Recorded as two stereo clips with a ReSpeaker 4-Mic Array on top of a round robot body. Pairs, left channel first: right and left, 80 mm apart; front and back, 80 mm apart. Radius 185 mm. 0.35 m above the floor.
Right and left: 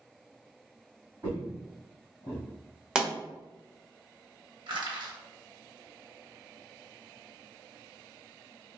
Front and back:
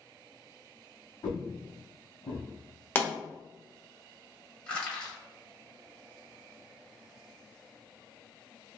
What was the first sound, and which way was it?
Footsteps, 40° left.